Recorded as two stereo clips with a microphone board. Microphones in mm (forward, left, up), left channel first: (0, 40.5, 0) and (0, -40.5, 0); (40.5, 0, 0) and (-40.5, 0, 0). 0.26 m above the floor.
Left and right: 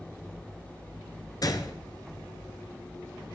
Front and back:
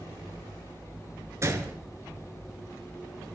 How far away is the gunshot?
About 1.6 m.